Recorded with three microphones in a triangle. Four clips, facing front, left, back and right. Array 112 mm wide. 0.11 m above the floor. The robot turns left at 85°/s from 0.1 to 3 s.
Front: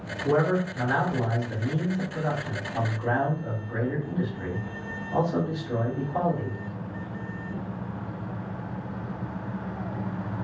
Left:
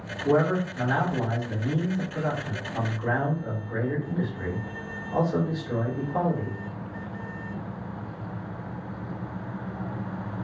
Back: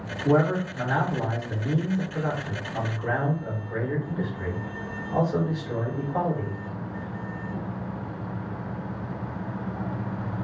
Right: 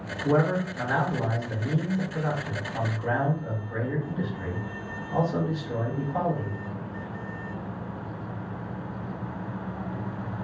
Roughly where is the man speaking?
Ahead.